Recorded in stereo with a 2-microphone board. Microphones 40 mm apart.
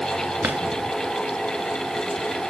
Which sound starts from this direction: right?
A drawer, at 0.4 s.